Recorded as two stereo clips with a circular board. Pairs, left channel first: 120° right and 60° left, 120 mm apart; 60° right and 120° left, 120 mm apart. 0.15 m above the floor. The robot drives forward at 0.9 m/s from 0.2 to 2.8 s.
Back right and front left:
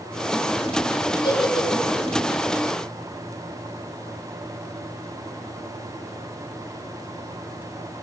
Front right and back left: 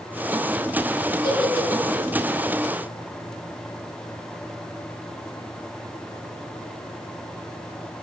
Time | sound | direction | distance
1.2 | a giggle | 90° right | 2.5 m